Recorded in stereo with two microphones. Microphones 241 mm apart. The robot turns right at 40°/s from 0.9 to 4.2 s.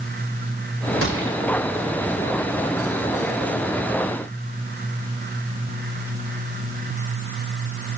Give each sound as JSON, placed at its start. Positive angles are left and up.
{"t": 1.0, "sound": "a gunshot", "side_deg": -65, "distance_m": 4.5}